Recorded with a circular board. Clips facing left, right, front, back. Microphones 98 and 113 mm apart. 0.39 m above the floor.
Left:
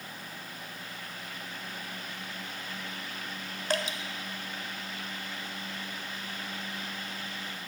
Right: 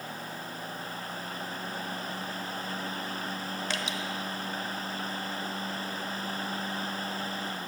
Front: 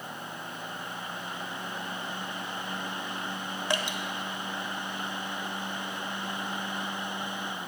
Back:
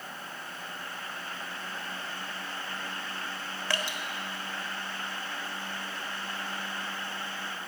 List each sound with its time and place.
3.7 s dripping: 65° left, 0.9 m